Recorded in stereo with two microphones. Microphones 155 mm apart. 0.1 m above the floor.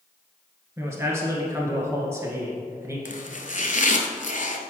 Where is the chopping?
55° left (ahead or behind), 0.6 m.